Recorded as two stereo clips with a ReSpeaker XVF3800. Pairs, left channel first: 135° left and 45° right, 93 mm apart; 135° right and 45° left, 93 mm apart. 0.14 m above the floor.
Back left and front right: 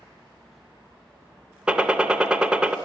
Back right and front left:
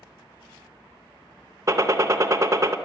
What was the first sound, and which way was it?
A gunshot, 30° left.